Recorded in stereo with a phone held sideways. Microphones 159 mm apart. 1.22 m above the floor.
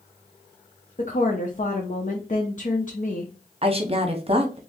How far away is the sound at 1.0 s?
About 0.6 m.